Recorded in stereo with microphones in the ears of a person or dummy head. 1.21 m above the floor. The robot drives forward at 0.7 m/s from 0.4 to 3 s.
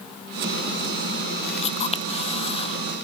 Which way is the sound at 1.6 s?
40° left (ahead or behind).